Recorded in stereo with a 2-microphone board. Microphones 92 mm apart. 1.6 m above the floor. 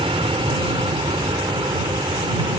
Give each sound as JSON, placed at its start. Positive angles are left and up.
{"t": 0.0, "sound": "an aircraft", "side_deg": -80}